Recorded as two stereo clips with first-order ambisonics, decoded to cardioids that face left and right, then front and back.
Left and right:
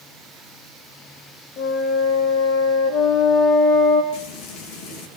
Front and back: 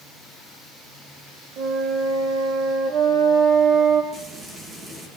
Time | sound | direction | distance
1.6 | a flute | 135° left | 5.5 m
4.1 | frying | 110° left | 9 m